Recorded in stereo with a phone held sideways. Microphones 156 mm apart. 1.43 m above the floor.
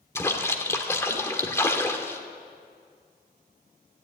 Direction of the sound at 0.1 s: 15° left (ahead or behind).